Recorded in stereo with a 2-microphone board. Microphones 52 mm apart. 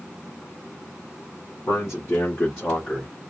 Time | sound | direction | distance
1.7 | a man speaking | 60° left (ahead or behind) | 1.9 m